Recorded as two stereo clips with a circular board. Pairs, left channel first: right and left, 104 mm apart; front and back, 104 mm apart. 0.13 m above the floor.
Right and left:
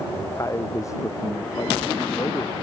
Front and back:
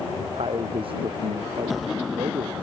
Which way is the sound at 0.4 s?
150° right.